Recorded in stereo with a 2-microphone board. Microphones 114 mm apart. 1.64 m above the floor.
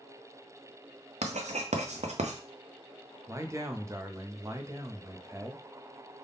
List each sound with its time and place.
1.2 s writing: 85° right, 0.6 m
3.3 s a man speaking: 25° right (ahead or behind), 0.5 m